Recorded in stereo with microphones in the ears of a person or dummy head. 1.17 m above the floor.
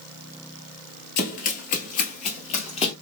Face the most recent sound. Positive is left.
turn(degrees=30)  # may be behind; listen again after turning